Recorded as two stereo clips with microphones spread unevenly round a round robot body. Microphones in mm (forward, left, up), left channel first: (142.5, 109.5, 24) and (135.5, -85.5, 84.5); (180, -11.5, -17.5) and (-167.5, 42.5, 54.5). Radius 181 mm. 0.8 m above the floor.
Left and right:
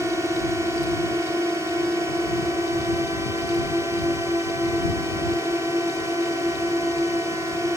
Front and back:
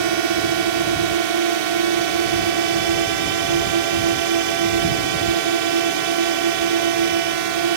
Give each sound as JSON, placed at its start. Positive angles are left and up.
{"t": 0.0, "sound": "a drone", "azimuth_deg": 180}